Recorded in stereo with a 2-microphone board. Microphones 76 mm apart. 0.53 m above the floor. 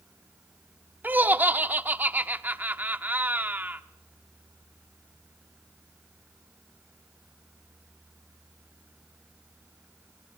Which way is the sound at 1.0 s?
25° right (ahead or behind).